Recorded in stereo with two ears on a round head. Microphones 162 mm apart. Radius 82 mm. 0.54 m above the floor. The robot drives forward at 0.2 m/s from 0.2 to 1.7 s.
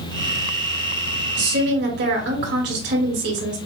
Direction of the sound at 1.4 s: 65° right (ahead or behind).